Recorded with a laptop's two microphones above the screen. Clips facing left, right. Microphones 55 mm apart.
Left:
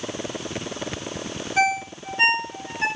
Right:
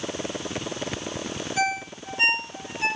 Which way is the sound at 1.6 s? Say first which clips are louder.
Left 5 dB; 35° left (ahead or behind).